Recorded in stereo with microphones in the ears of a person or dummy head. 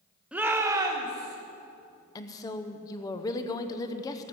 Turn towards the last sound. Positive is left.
turn(degrees=20)  # may be behind; listen again after turning